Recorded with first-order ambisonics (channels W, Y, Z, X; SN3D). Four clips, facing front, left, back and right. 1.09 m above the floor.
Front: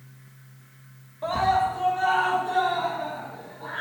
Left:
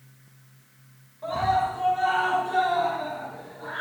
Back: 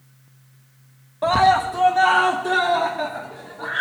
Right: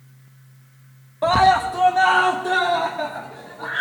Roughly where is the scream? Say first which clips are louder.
Right 9 dB, back 6 dB; behind right.